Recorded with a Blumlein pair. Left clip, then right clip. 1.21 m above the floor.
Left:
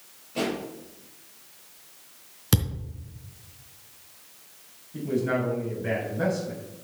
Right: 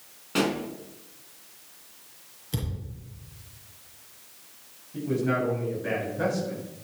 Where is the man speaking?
Straight ahead, 7.5 m.